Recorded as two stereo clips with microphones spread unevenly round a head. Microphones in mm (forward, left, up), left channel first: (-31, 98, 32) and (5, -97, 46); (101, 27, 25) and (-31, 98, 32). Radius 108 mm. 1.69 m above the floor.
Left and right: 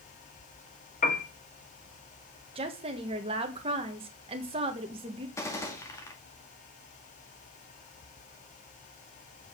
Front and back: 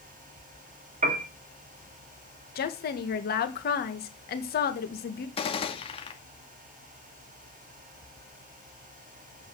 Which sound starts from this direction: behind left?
A piano, at 1.0 s.